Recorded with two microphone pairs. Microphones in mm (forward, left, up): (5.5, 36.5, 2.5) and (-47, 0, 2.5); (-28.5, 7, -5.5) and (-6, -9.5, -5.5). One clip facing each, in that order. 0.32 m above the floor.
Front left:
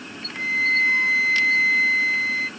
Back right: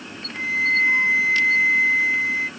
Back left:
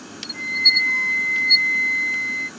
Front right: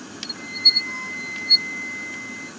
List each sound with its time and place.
0.3 s a flute: 155° left, 2.5 m